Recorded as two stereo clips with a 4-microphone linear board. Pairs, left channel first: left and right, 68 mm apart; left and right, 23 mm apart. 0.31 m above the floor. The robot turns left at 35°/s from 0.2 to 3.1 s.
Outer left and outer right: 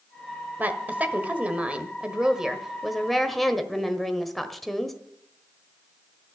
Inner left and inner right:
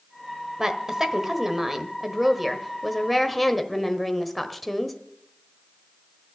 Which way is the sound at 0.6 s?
25° right (ahead or behind).